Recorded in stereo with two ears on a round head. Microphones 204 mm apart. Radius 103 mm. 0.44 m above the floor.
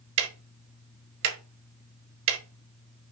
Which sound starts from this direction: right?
Ticking, at 0.2 s.